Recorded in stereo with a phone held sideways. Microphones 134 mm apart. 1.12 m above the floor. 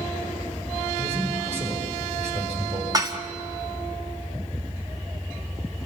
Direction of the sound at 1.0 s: 55° right (ahead or behind).